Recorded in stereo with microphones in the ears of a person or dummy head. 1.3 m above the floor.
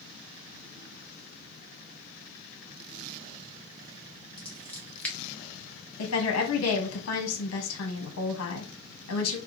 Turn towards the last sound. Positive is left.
turn(degrees=80)